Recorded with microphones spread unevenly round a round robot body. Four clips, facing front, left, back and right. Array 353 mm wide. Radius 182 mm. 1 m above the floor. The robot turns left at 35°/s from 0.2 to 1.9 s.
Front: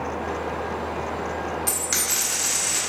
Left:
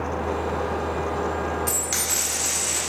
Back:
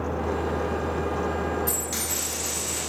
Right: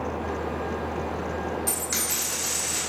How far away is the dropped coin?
About 1.3 m.